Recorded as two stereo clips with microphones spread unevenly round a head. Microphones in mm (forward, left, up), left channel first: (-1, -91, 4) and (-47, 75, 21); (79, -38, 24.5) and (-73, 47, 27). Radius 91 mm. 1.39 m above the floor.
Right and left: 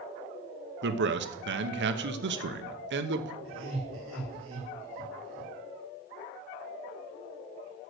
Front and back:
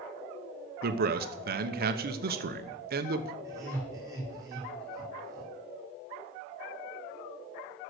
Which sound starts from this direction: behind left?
A man speaking, at 0.8 s.